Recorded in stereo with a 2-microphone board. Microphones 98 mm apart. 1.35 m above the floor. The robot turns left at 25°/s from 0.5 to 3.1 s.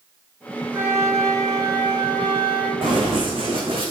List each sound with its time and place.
0.7 s a flute: 25° right, 3 m; by 2.7 s 75° right, 3 m
2.8 s running footsteps: 55° right (ahead or behind), 5 m; by 3.9 s 65° right (ahead or behind), 4 m